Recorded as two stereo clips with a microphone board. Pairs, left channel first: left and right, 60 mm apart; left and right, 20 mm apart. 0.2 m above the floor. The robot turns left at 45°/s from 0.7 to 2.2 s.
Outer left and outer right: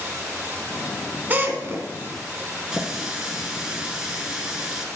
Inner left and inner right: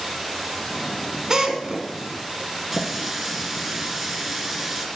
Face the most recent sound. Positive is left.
turn(degrees=-10)  # may be behind; listen again after turning